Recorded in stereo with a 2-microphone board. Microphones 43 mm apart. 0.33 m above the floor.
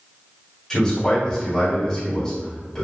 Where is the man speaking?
15° left (ahead or behind), 1.6 m.